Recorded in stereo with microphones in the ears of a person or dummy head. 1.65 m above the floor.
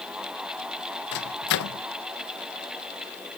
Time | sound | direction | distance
1.1 | a microwave | 60° left (ahead or behind) | ?